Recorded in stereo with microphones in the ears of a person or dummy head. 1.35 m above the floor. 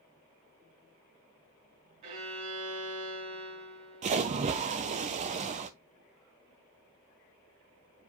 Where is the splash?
40° right (ahead or behind), 0.8 m.